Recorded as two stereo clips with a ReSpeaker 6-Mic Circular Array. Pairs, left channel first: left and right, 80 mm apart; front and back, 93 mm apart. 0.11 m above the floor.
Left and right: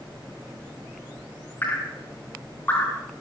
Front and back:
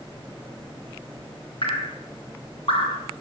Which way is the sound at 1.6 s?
25° left.